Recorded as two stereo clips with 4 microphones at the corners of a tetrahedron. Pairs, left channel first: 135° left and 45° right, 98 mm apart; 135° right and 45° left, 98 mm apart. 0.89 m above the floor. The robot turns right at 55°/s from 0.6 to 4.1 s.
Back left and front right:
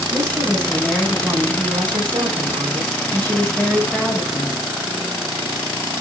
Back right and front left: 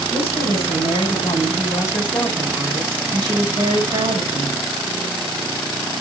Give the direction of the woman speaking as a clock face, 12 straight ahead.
5 o'clock.